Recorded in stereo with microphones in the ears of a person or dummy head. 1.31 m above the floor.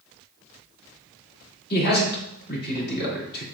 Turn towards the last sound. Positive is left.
turn(degrees=55)  # may be behind; listen again after turning